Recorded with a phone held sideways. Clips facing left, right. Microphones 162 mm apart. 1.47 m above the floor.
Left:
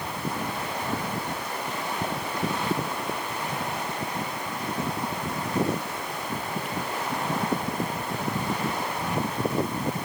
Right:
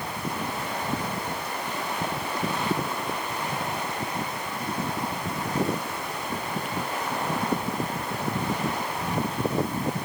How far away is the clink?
I don't hear a clink.